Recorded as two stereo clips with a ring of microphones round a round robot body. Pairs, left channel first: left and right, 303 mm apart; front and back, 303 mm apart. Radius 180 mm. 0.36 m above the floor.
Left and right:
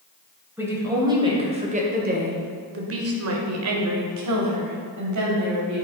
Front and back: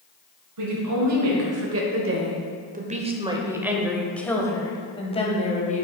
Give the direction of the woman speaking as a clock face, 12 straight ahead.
6 o'clock.